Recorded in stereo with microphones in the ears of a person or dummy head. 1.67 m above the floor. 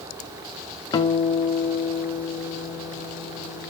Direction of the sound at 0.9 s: 25° left (ahead or behind).